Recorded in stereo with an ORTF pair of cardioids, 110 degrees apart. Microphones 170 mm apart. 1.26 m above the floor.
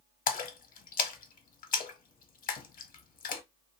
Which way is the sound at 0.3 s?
55° left.